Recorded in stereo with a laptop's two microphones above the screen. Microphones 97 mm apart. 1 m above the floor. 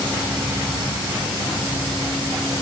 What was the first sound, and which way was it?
Only background noise.